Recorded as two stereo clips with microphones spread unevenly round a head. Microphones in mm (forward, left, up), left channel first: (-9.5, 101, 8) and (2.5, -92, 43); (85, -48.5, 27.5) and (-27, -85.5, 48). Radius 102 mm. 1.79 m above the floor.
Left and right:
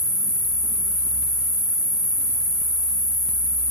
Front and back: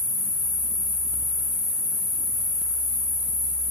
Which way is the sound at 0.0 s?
25° left.